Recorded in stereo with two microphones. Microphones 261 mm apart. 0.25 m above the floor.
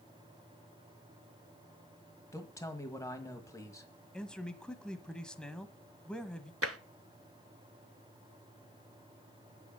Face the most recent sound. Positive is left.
turn(degrees=-60)  # may be behind; listen again after turning